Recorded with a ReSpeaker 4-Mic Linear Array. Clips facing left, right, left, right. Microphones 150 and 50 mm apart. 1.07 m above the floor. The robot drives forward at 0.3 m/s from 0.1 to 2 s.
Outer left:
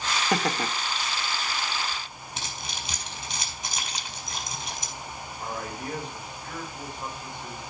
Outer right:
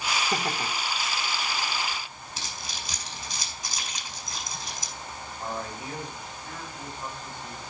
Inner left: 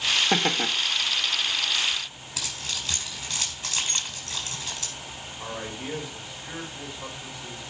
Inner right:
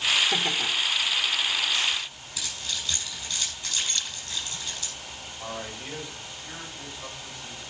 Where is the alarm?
No alarm in this recording.